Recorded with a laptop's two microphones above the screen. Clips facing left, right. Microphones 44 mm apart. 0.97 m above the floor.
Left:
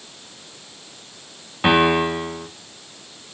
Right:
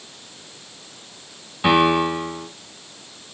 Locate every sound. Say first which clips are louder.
1.6 s a piano: even; 20° left (ahead or behind), 4 m